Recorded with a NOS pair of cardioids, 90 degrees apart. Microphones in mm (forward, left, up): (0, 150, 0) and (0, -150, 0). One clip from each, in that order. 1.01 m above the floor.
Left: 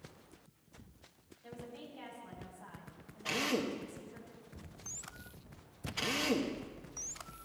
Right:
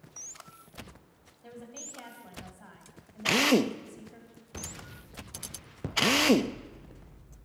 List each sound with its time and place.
1.4 s a woman speaking: 45° right, 8 m; by 4.2 s 55° right, 7 m
3.2 s a drill: 65° right, 0.9 m